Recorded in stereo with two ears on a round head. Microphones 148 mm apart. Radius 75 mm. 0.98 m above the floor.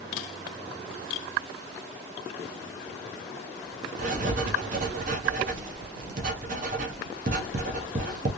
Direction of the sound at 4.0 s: 50° right (ahead or behind).